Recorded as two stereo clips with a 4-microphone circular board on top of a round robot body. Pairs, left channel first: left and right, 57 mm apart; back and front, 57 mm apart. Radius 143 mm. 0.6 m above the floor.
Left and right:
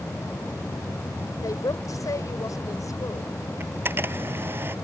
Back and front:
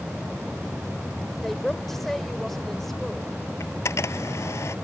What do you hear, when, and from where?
1.4 s a woman speaking: 95° left
3.6 s a camera shutter: 140° right